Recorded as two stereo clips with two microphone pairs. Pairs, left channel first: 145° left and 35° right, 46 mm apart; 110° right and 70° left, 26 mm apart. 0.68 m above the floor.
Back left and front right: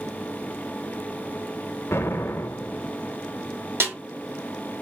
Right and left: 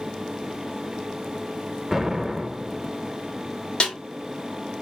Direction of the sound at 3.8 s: 65° right.